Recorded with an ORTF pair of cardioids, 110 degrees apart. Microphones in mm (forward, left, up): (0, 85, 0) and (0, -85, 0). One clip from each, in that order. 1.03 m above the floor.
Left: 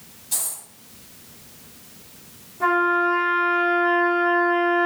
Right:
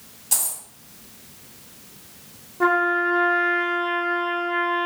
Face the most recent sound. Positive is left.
turn(degrees=-35)